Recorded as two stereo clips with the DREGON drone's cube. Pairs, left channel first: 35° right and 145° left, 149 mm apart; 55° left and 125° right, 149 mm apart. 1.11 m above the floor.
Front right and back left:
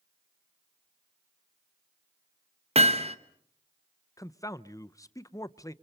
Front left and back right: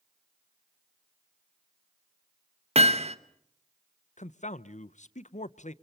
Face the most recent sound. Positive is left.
turn(degrees=30)